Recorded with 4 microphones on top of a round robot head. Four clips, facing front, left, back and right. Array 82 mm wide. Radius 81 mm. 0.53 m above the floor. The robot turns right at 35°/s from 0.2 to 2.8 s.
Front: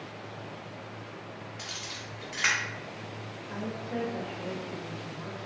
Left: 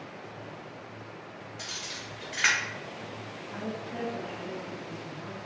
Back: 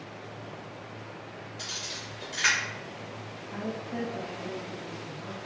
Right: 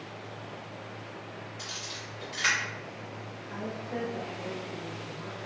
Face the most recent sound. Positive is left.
turn(degrees=-25)